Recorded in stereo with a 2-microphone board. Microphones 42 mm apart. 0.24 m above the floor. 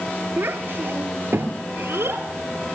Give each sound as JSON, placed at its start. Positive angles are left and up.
{"t": 0.4, "sound": "a child speaking", "side_deg": -60, "distance_m": 2.5}